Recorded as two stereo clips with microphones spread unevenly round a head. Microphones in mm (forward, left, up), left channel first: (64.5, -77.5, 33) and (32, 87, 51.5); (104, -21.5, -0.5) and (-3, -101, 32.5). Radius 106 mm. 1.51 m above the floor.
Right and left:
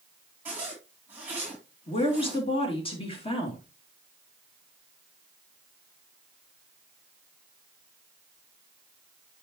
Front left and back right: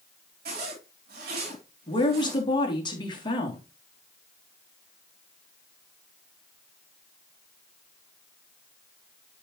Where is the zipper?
175° right, 4 m.